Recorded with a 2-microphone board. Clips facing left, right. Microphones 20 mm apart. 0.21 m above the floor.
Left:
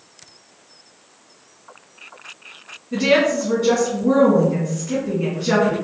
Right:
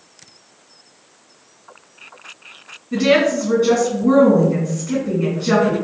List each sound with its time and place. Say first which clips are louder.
2.9 s a woman speaking: right 2 dB; 15° right (ahead or behind), 1.9 m